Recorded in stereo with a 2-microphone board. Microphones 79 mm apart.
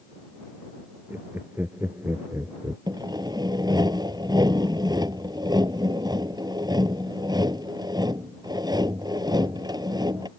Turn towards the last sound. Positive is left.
turn(degrees=-65)  # may be behind; listen again after turning